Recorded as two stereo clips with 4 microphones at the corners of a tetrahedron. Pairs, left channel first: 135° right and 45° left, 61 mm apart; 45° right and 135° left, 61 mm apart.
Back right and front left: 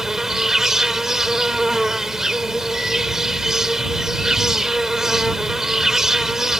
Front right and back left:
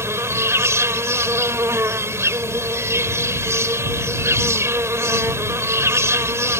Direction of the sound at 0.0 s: 125° left.